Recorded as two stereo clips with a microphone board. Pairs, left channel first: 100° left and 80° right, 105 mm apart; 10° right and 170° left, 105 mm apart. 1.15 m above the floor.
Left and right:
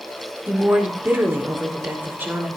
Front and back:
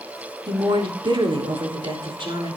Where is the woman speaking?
150° right, 3.5 m.